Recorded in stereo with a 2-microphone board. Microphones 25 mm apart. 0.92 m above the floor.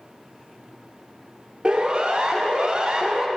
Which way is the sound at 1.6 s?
40° right (ahead or behind).